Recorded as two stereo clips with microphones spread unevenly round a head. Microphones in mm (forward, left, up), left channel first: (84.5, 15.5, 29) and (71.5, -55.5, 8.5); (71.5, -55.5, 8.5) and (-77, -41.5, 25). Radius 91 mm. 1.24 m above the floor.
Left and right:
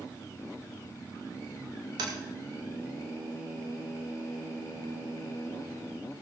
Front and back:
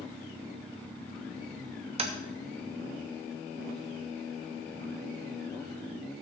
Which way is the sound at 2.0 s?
135° right.